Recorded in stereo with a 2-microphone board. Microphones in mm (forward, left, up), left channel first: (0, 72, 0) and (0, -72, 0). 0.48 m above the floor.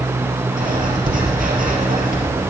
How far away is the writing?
About 3.5 m.